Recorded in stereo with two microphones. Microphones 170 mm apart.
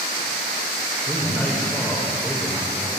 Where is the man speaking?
5° left (ahead or behind), 1.2 m.